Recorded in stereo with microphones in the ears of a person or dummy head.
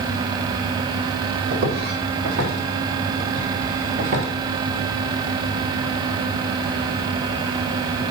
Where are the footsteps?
65° right (ahead or behind), 3.5 m; by 4.3 s 40° right (ahead or behind), 1.8 m.